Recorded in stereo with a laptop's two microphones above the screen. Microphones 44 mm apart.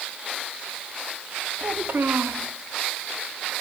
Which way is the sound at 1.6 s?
65° right (ahead or behind).